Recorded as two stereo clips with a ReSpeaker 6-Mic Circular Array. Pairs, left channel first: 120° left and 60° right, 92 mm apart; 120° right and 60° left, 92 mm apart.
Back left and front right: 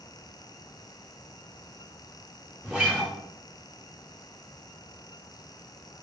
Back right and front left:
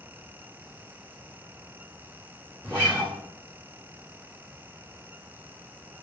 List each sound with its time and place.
2.6 s a guitar: 105° right, 1.3 m